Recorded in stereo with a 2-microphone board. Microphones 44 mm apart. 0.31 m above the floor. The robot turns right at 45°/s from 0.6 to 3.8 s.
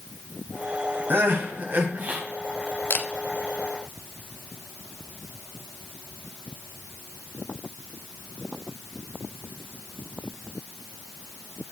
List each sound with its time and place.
1.1 s crying: 100° right, 1.4 m; by 2.2 s 50° right, 1.4 m
2.9 s a camera shutter: 55° left (ahead or behind), 0.7 m; by 3.1 s 60° left (ahead or behind), 0.7 m